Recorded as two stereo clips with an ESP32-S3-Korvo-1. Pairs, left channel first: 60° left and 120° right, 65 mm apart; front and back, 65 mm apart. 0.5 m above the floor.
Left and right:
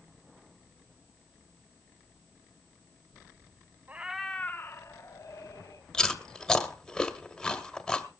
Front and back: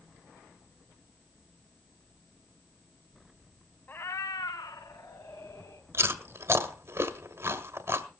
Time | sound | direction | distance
3.9 | a cat meowing | 60° right | 0.7 m
5.9 | chewing | 140° left | 1.2 m